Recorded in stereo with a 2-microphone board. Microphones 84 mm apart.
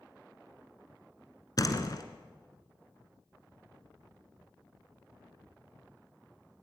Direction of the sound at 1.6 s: 45° left (ahead or behind).